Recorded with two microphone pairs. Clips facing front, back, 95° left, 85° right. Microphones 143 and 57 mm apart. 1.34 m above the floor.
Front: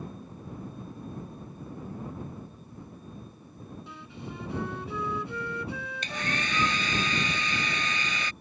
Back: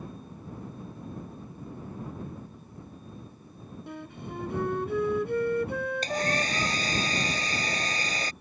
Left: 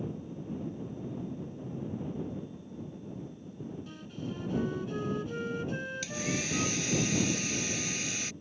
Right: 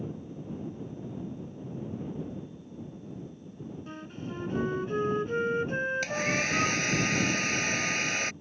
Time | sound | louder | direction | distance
3.9 | a flute | back 6 dB, right 1 dB | 140° right | ?
6.0 | a hair dryer | back 5 dB, right 6 dB | 125° right | ?